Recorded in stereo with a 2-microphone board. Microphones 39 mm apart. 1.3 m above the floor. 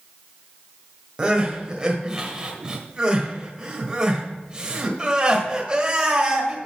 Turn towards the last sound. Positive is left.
turn(degrees=-25)  # may be behind; listen again after turning